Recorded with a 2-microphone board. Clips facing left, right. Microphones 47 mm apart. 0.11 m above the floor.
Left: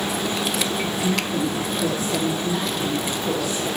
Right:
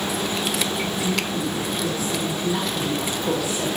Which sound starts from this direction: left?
A woman speaking, at 1.0 s.